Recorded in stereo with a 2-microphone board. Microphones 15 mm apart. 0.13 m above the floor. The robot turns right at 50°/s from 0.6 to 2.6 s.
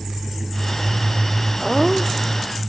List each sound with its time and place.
1.6 s laughter: 10° right; by 2.5 s 35° left